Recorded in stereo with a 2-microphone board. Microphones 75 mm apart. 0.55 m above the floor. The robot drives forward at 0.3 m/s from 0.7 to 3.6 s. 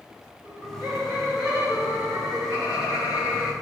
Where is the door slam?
I don't hear a door slam.